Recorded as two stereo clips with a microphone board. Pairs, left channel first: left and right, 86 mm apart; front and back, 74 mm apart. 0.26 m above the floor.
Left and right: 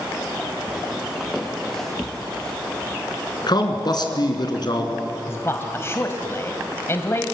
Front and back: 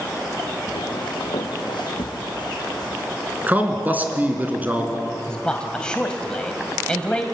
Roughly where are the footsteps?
Ahead.